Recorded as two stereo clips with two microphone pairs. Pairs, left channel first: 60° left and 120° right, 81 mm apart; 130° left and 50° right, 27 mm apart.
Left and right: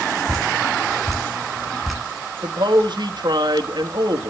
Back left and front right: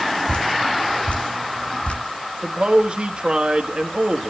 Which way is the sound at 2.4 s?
95° right.